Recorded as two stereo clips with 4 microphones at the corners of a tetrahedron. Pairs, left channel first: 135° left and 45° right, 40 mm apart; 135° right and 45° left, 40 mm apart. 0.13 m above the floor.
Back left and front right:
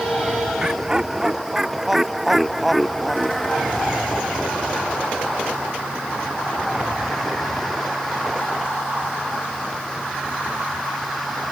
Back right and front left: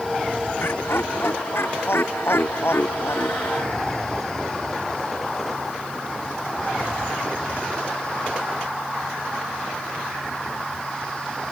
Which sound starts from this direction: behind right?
Laughter, at 0.6 s.